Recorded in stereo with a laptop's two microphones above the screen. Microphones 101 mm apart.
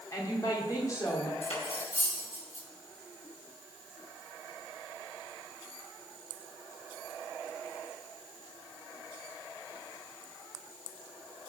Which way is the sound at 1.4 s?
85° left.